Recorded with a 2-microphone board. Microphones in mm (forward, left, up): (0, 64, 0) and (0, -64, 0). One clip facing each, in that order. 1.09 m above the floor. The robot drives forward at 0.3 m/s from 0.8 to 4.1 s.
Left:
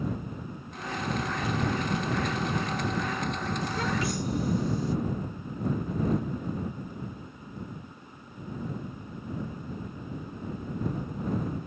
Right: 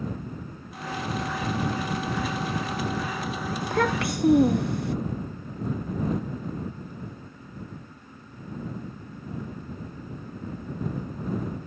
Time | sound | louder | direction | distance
3.6 | a child speaking | right 7 dB | 55° right (ahead or behind) | ?